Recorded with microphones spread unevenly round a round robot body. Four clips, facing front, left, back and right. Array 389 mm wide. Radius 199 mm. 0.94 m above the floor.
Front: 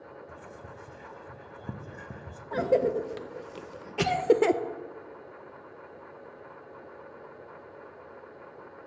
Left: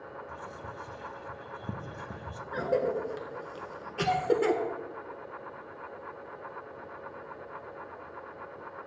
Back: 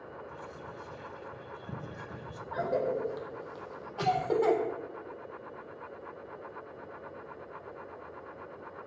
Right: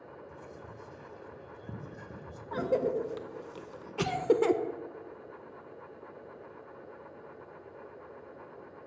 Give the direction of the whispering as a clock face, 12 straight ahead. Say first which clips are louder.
Left 5 dB, back 1 dB; 10 o'clock.